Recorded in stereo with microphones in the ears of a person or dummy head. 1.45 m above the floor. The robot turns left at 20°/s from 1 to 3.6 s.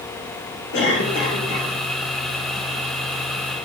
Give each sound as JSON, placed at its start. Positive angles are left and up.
{"t": 0.7, "sound": "a cough", "side_deg": 70, "distance_m": 3.0}